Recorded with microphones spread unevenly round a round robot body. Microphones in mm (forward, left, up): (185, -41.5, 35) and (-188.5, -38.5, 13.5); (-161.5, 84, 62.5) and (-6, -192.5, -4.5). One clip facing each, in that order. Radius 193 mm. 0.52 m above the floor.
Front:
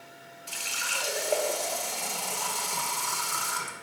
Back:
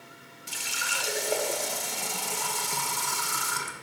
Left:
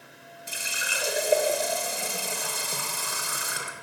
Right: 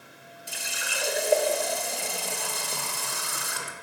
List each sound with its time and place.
0.5 s a running tap: 145° right, 0.7 m